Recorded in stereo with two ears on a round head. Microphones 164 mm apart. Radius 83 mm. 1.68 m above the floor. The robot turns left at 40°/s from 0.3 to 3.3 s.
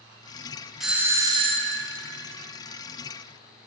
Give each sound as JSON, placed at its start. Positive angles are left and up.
{"t": 0.8, "sound": "a doorbell", "azimuth_deg": 0, "distance_m": 0.6}